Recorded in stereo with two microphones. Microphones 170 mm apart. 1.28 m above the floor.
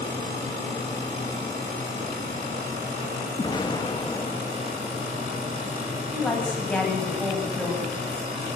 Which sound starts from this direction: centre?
A woman speaking, at 6.1 s.